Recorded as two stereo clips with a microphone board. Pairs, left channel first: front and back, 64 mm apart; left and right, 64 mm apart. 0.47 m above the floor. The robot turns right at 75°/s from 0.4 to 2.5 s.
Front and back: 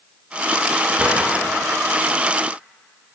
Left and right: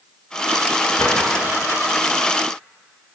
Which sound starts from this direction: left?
A drawer, at 1.0 s.